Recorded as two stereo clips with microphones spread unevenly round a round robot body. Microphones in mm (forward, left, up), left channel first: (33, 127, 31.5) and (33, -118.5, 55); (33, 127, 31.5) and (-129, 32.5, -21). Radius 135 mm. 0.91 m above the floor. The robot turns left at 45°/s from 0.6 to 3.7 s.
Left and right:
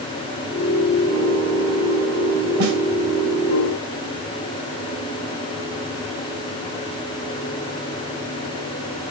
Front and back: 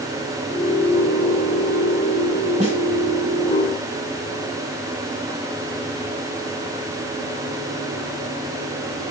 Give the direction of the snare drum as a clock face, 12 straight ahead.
3 o'clock.